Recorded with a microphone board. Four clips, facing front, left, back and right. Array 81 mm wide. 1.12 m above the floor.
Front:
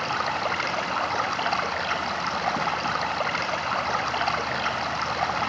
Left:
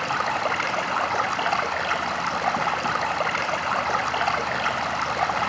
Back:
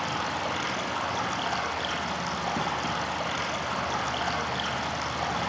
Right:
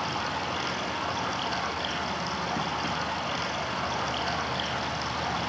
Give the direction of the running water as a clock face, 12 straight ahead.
10 o'clock.